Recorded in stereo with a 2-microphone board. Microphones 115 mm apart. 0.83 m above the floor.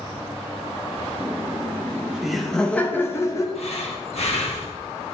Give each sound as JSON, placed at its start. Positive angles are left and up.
{"t": 1.2, "sound": "laughter", "side_deg": -20, "distance_m": 1.5}
{"t": 3.5, "sound": "breathing", "side_deg": 65, "distance_m": 1.6}